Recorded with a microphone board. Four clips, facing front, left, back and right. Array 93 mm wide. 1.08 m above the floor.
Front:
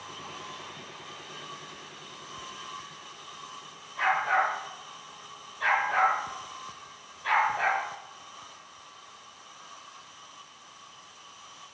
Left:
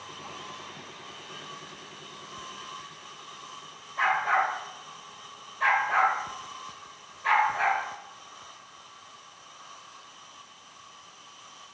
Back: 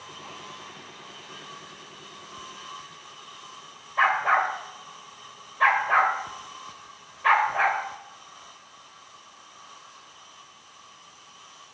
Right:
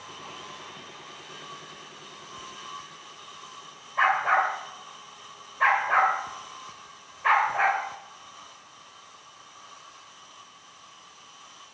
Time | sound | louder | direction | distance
4.0 | a dog barking | right 2 dB, back 4 dB | 150° right | 1.6 m